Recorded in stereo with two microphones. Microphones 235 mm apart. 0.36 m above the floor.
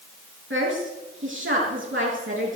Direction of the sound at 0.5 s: 55° right (ahead or behind).